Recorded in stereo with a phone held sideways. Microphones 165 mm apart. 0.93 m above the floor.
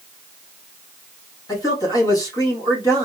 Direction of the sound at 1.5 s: 20° left (ahead or behind).